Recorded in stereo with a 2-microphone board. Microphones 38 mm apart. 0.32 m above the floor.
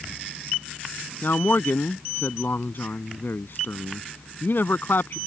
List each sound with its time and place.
1.2 s a man speaking: 65° left (ahead or behind)